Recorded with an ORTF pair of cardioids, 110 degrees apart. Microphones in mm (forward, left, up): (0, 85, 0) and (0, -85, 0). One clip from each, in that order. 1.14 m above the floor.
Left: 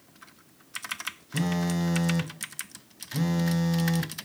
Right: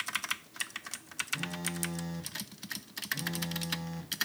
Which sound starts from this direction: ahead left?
A phone buzzing, at 1.3 s.